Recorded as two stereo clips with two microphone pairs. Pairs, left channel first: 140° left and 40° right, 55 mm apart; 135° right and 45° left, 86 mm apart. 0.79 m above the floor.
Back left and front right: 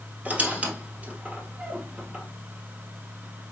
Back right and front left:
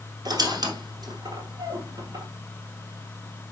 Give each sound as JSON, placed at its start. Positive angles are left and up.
{"t": 0.2, "sound": "a squeak", "azimuth_deg": 20, "distance_m": 1.3}